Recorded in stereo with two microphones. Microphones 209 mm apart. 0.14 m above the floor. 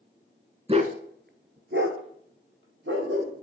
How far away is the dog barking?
About 0.6 m.